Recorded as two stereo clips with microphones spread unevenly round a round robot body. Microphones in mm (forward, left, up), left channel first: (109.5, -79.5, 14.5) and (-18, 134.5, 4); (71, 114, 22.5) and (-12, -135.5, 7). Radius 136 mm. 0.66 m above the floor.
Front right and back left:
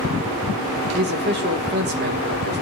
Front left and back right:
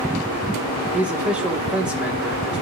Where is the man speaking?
170° left, 1.0 m.